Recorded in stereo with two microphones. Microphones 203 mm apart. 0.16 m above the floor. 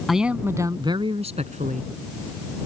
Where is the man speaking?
Centre (ahead or behind); by 1.9 s 45° right (ahead or behind).